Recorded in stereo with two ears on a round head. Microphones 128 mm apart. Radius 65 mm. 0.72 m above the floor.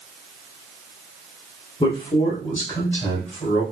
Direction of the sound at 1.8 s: 35° left (ahead or behind).